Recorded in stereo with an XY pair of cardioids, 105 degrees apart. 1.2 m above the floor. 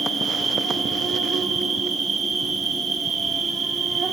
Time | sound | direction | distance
0.0 | an insect | 50° right | 1.9 m